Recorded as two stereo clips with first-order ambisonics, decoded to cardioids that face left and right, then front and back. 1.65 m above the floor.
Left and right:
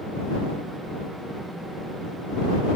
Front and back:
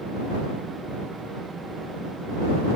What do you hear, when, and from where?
Only background noise.